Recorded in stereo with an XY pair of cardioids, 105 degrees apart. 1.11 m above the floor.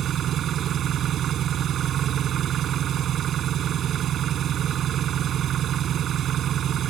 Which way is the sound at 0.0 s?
60° right.